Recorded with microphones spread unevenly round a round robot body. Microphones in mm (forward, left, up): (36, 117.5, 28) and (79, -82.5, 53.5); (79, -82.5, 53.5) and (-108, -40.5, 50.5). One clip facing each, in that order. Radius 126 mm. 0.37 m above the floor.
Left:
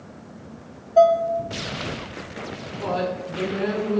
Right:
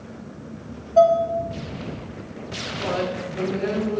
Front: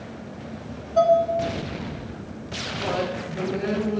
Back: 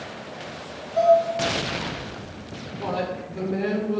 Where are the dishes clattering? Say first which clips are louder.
Even, back 1 dB; 30° left, 0.9 m.